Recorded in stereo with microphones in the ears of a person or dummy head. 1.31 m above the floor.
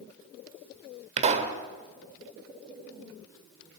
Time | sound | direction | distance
1.2 | a pop | 35° right (ahead or behind) | 1.8 m